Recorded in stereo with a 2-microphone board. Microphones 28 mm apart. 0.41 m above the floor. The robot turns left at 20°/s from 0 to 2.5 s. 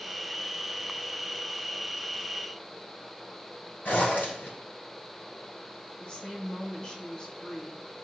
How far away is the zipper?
About 3 m.